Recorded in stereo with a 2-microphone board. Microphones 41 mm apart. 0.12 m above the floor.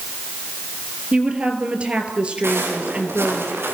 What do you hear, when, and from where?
1.1 s a woman speaking: 25° right (ahead or behind), 3 m
2.4 s footsteps: 80° right, 7.5 m; by 3.8 s 75° right (ahead or behind), 7 m